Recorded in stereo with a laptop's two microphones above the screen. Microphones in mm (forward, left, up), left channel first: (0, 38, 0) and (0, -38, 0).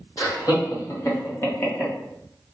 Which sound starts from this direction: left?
Laughter, at 0.2 s.